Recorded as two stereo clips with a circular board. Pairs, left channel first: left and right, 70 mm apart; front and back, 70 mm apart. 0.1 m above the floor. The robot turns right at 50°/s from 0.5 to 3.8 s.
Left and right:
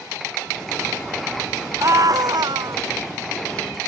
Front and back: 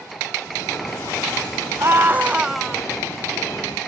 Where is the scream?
135° right; by 2.8 s 80° right.